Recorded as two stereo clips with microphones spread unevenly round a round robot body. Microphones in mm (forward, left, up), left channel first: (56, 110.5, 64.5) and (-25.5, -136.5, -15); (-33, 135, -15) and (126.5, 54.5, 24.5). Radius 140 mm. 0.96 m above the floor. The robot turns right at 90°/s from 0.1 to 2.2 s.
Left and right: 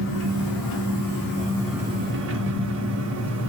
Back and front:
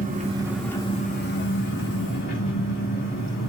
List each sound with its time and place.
0.0 s an engine running: 20° left, 1.3 m; by 3.5 s 150° right, 1.3 m